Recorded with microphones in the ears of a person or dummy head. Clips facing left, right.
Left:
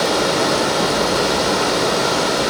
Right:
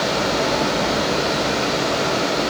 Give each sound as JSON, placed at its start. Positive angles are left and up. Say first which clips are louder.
{"t": 0.0, "sound": "running water", "louder": "left 3 dB", "side_deg": 65, "distance_m": 2.5}